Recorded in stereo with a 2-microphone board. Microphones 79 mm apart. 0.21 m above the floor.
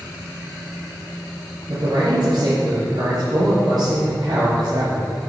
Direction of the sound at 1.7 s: 60° right (ahead or behind).